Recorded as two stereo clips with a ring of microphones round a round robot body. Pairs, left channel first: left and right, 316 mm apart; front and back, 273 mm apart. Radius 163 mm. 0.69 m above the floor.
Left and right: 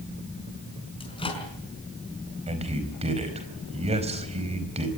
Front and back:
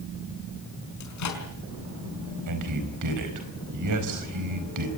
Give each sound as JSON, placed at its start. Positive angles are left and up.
{"t": 1.0, "sound": "a microwave", "azimuth_deg": 15, "distance_m": 5.0}
{"t": 2.5, "sound": "a man speaking", "azimuth_deg": -160, "distance_m": 4.5}